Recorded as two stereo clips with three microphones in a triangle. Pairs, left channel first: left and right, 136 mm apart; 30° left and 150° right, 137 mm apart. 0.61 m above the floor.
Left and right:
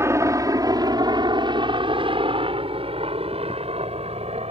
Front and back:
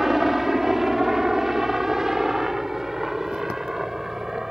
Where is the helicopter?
65° right.